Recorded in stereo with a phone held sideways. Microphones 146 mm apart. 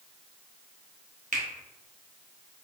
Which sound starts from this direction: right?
A finger snap, at 1.3 s.